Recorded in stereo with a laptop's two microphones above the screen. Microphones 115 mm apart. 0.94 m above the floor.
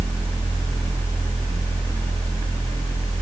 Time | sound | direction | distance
0.0 | a fan | 20° left (ahead or behind) | 1.9 m